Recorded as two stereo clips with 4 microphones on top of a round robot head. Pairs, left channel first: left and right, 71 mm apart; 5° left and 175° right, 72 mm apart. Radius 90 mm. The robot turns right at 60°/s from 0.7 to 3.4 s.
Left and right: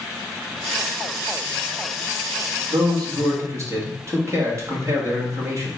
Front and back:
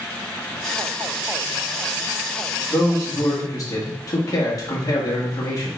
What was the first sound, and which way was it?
A man speaking, 85° right.